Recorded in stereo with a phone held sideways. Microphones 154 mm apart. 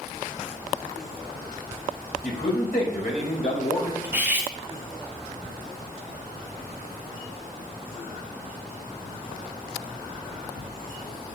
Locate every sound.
2.2 s a man speaking: 75° left (ahead or behind), 4.5 m; by 3.9 s 60° left (ahead or behind), 4.5 m
4.0 s cutlery clinking: 15° right (ahead or behind), 1.4 m